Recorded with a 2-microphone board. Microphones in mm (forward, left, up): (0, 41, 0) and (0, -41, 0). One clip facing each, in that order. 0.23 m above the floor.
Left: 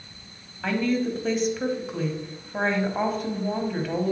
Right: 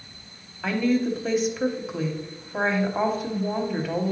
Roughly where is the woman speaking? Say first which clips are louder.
Right 2 dB; centre.